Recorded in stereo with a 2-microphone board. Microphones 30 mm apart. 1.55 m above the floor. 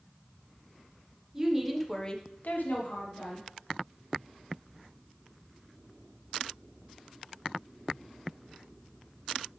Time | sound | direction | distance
1.3 | a woman speaking | 15° right (ahead or behind) | 1.5 m